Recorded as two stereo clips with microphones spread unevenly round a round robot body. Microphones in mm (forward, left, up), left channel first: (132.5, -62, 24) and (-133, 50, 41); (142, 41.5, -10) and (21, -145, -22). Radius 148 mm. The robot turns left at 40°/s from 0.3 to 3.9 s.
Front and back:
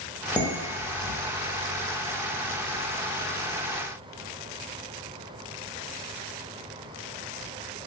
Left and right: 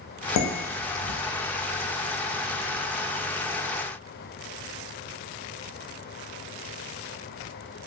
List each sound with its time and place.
0.4 s dishes clattering: 65° left, 0.5 m; by 1.2 s 30° left, 0.5 m